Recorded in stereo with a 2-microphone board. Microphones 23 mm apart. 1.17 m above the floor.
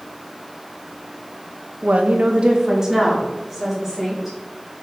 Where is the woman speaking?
85° right, 1.1 m; by 4.4 s 5° left (ahead or behind), 4 m.